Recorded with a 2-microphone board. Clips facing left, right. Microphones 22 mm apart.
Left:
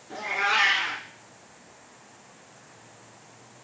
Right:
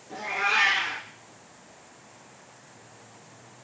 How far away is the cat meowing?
About 1.3 m.